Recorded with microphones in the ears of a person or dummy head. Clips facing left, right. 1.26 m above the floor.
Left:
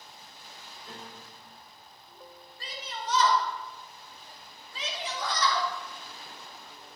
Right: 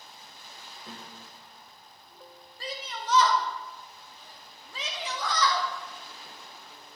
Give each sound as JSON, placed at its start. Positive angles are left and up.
{"t": 0.8, "sound": "a piano", "side_deg": -60, "distance_m": 2.5}
{"t": 2.6, "sound": "a shout", "side_deg": -70, "distance_m": 2.5}